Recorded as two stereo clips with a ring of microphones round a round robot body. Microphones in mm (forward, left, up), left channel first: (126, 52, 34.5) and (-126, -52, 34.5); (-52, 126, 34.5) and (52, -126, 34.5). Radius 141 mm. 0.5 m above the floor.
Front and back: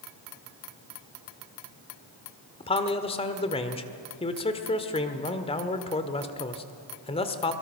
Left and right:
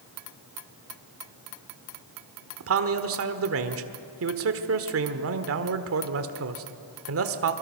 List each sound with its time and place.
2.6 s a man speaking: 45° right, 1.5 m